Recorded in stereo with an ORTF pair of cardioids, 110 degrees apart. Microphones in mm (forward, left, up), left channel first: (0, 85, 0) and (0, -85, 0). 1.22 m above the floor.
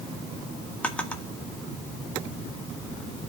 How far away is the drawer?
About 1.1 m.